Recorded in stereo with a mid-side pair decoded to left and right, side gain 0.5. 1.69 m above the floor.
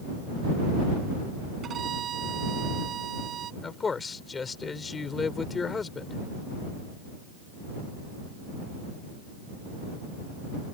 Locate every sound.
1.6 s a violin: 55° right
3.6 s a man speaking: 30° left